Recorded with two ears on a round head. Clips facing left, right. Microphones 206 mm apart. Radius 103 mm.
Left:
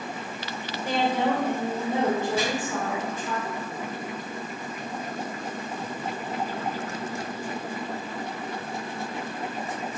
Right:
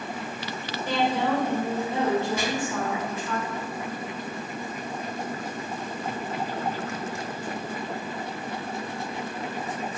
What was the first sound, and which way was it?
A woman speaking, 40° left (ahead or behind).